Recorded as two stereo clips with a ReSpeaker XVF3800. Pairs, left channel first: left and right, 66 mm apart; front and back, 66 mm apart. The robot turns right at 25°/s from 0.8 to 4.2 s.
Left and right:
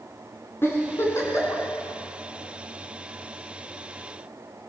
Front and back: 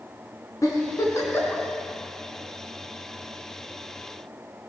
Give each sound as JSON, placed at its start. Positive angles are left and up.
{"t": 0.6, "sound": "a giggle", "azimuth_deg": 35, "distance_m": 4.0}